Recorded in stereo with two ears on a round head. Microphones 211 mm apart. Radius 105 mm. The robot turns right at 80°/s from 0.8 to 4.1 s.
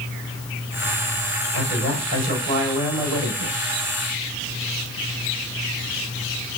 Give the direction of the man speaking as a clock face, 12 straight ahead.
7 o'clock.